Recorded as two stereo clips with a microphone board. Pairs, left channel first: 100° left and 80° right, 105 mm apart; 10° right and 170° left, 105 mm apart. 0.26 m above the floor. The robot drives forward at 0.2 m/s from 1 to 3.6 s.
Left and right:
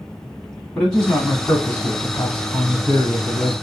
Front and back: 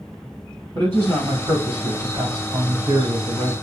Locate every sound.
0.8 s a man speaking: 170° right, 1.8 m; by 3.5 s 175° right, 2 m